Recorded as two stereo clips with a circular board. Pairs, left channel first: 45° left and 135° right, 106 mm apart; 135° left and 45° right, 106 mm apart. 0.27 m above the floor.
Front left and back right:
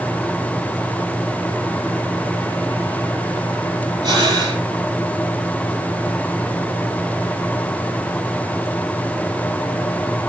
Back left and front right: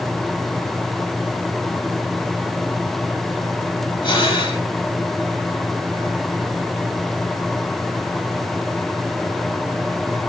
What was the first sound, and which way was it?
Breathing, 175° left.